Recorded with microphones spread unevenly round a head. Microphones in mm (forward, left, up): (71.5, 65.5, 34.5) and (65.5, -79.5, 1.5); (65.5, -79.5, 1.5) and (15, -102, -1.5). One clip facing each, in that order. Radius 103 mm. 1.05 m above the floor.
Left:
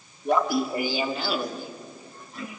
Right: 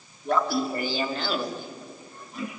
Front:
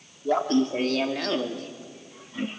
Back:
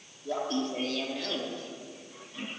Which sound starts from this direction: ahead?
Laughter, at 0.2 s.